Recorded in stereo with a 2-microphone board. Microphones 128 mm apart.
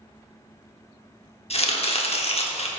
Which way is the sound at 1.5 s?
50° left (ahead or behind).